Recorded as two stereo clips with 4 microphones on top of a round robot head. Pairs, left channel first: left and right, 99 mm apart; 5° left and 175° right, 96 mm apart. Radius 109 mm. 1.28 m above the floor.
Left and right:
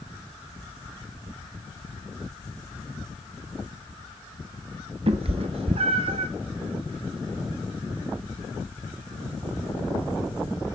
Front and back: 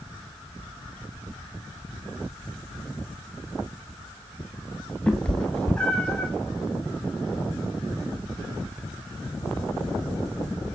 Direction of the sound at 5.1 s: 80° right.